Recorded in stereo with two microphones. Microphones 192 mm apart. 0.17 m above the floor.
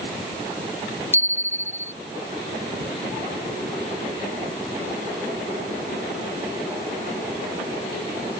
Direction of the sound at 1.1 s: 10° right (ahead or behind).